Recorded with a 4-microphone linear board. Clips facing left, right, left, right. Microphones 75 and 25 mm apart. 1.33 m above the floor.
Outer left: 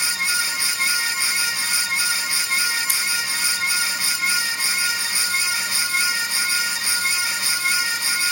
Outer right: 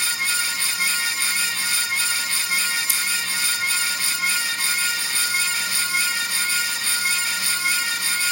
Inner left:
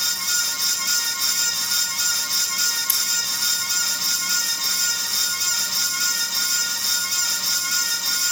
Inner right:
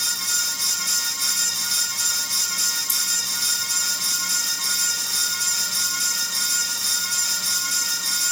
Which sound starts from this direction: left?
Scissors, at 2.9 s.